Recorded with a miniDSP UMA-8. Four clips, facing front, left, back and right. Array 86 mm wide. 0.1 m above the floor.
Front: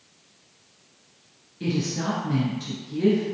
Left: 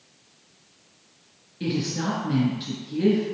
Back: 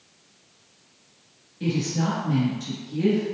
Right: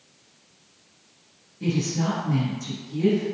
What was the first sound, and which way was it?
A woman speaking, 85° left.